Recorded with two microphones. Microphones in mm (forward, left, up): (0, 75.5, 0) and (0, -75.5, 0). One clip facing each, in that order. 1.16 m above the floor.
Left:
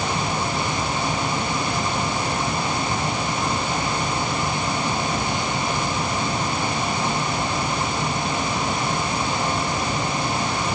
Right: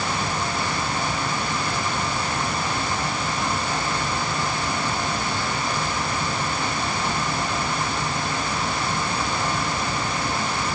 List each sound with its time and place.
Only background noise.